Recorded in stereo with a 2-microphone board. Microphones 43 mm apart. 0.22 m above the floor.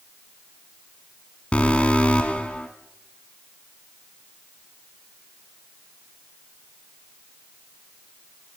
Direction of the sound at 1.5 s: 30° left (ahead or behind).